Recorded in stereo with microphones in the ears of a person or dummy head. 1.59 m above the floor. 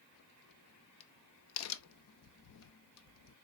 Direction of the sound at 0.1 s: 75° left (ahead or behind).